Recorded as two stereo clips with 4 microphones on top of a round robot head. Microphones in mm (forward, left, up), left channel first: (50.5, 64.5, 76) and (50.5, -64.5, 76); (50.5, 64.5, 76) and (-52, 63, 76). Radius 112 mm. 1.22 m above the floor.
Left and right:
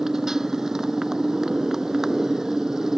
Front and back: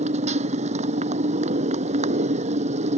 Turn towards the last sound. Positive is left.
turn(degrees=180)